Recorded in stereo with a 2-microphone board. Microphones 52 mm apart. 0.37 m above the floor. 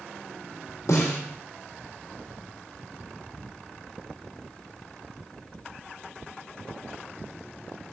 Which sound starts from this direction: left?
A snare drum, at 0.9 s.